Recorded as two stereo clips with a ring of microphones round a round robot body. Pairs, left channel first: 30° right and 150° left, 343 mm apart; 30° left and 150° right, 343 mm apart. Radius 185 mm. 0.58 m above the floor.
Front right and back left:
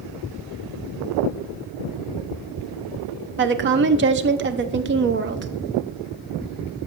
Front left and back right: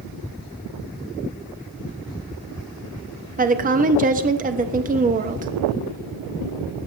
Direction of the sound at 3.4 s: 165° left.